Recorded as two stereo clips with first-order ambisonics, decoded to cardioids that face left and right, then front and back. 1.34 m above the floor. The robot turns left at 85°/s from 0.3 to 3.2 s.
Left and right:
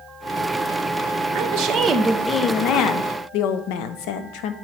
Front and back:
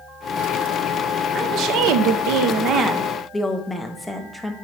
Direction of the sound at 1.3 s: 115° right.